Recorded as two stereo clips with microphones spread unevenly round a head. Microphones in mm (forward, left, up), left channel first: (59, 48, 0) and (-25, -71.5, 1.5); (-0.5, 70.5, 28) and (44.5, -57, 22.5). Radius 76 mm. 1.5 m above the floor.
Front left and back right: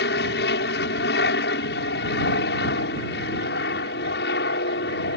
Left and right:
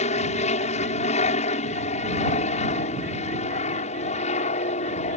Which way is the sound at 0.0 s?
70° left.